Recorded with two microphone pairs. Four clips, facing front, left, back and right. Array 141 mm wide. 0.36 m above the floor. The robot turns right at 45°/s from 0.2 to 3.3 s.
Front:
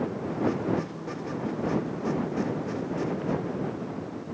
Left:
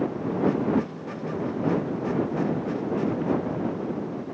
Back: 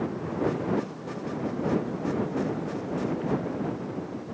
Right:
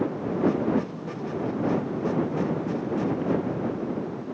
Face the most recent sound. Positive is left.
No sound to turn to.